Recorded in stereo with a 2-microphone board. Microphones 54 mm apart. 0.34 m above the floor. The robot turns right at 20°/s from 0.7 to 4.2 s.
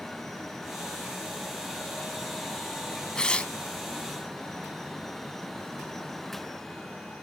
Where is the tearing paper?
15° left (ahead or behind), 0.8 m; by 3.5 s 20° left (ahead or behind), 0.8 m.